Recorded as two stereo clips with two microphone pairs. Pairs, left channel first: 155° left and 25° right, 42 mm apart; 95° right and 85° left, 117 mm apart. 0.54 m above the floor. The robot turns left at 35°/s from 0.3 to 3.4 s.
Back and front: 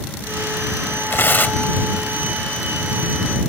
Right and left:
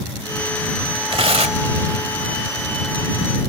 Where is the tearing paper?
125° left; by 1.7 s 105° left.